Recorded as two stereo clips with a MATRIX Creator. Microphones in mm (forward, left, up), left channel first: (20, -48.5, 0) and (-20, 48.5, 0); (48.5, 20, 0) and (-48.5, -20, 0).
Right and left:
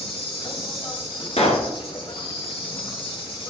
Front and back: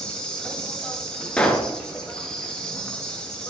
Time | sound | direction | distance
0.0 | an insect | 60° right | 2.5 m
1.4 | a pop | 60° right | 1.7 m